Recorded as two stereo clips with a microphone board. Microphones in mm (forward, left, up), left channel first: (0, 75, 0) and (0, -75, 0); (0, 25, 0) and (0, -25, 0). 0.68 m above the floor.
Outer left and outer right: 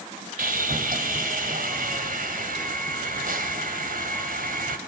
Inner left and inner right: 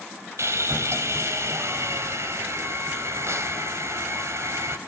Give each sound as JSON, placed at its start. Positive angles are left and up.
{"t": 0.4, "sound": "sawing", "side_deg": -75, "distance_m": 3.0}